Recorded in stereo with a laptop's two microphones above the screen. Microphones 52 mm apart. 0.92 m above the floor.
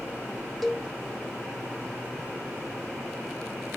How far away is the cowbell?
About 0.7 m.